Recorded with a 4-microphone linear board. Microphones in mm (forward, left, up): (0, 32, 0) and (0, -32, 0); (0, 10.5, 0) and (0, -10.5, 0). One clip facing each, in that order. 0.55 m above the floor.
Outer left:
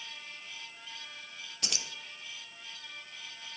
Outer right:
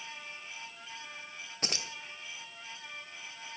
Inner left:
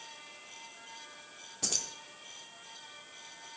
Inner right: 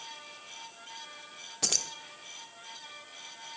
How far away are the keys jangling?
About 1.0 m.